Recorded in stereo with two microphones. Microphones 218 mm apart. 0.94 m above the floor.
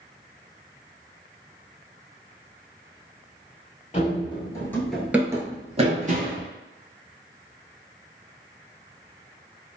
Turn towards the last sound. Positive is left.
turn(degrees=-45)  # may be behind; listen again after turning